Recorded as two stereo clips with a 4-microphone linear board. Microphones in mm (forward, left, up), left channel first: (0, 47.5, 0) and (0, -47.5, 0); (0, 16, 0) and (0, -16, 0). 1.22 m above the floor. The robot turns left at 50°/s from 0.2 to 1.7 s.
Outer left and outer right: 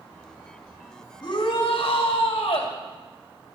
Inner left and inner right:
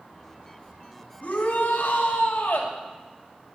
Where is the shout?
55° left (ahead or behind), 3 m; by 2.7 s 75° left (ahead or behind), 3 m.